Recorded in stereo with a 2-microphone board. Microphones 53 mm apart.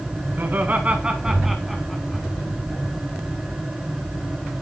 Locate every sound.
0.4 s laughter: 40° right (ahead or behind), 2 m; by 2.2 s 15° left (ahead or behind), 2.5 m